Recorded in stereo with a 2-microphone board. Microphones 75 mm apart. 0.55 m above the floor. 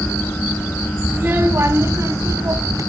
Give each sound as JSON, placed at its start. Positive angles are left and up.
{"t": 1.1, "sound": "a child speaking", "side_deg": -30, "distance_m": 2.0}